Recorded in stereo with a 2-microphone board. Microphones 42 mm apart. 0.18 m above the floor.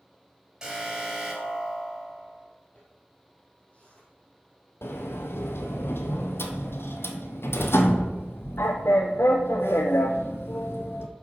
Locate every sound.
0.6 s an alarm: 15° right (ahead or behind), 3 m
2.8 s a zipper: 30° left (ahead or behind), 4.5 m
4.8 s a sliding door: 70° left (ahead or behind), 1.1 m